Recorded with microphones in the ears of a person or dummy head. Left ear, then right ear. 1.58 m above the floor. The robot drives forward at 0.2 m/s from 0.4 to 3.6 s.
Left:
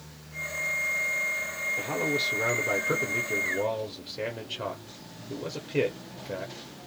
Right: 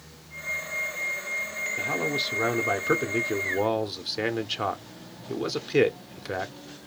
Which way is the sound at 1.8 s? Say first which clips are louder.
Right 2 dB; 35° right (ahead or behind).